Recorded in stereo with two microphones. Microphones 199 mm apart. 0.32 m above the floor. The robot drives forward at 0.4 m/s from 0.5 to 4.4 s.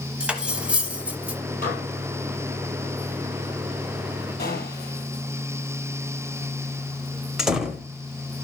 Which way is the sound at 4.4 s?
50° left (ahead or behind).